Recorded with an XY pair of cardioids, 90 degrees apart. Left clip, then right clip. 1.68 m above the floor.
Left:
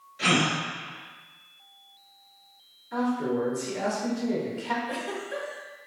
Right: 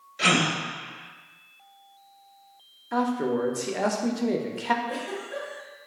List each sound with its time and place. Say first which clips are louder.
0.2 s a gasp: right 2 dB; 65° right, 0.8 m
2.9 s a man speaking: right 2 dB; 65° right, 0.5 m
4.8 s a giggle: even; 45° left, 0.8 m